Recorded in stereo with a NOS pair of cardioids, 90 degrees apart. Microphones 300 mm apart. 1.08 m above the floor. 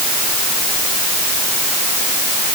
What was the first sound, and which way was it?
Only background noise.